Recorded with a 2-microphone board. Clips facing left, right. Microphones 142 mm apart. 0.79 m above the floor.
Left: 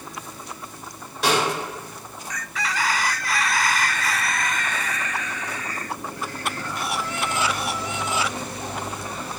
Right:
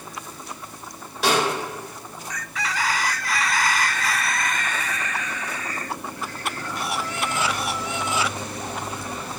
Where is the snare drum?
Centre (ahead or behind), 1.5 m.